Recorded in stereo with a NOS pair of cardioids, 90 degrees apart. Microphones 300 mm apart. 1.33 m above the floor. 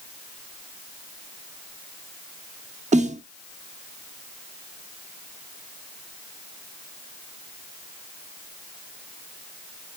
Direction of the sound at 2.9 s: 25° right.